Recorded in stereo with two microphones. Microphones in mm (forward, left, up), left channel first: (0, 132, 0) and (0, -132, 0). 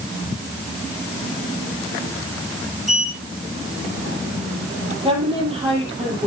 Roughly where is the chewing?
No chewing in this recording.